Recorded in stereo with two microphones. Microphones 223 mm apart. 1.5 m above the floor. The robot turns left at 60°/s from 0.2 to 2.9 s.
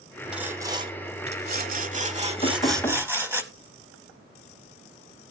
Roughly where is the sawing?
Ahead.